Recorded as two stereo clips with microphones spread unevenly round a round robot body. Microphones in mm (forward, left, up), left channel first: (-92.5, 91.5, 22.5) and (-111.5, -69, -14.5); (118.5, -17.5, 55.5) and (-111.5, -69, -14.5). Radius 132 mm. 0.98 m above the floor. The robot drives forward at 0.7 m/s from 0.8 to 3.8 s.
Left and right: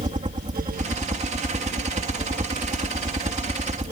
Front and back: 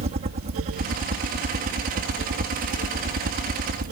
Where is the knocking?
No knocking in this recording.